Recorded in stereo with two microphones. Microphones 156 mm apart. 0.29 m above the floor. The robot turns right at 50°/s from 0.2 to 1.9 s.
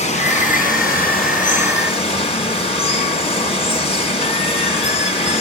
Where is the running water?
50° left, 2.5 m; by 5.4 s 135° left, 2.5 m.